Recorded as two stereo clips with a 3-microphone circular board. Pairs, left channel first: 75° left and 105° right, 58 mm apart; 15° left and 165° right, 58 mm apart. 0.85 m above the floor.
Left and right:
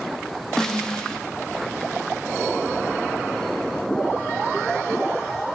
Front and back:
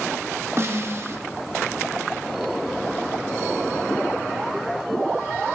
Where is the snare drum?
155° left, 0.8 m.